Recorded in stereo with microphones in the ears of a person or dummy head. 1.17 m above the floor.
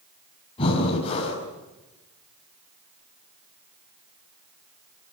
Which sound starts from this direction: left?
Breathing, at 0.6 s.